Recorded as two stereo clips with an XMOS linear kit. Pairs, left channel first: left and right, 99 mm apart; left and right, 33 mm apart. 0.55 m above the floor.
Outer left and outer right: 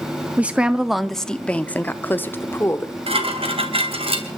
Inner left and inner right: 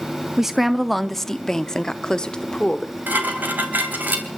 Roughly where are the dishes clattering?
Right.